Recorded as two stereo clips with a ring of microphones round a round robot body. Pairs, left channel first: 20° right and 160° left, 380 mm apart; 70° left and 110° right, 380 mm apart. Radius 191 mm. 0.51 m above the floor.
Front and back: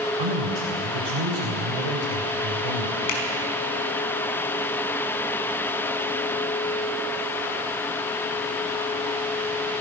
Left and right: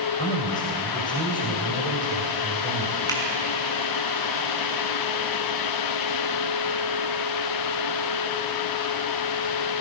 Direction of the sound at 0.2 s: 145° left.